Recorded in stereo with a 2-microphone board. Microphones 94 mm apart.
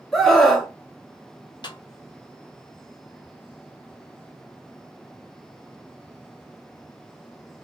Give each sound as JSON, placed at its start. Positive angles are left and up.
{"t": 0.1, "sound": "a scream", "side_deg": 0, "distance_m": 1.1}
{"t": 1.6, "sound": "a snare drum", "side_deg": 55, "distance_m": 0.6}